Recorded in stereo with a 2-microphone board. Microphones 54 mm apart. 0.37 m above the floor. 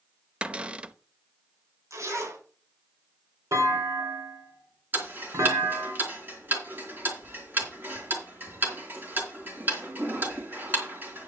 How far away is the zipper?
About 4.5 m.